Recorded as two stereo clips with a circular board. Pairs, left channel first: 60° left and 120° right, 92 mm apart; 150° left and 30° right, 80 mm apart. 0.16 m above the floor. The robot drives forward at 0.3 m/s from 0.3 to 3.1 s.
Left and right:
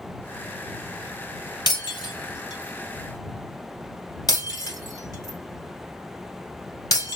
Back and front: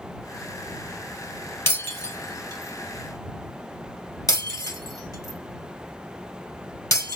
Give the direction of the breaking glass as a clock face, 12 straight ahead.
9 o'clock.